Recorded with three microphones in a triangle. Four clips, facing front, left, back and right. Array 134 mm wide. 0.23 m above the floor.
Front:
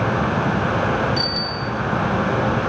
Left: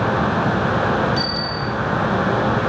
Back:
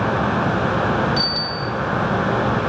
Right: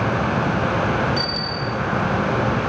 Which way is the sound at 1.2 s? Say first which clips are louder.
Left 2 dB, even; 175° left.